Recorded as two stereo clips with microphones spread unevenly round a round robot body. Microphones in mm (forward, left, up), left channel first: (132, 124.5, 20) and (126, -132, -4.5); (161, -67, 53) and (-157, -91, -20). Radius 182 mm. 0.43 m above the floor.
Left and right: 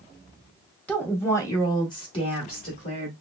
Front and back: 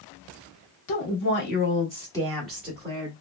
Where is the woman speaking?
Straight ahead, 1.1 m; by 3.1 s 145° left, 1.1 m.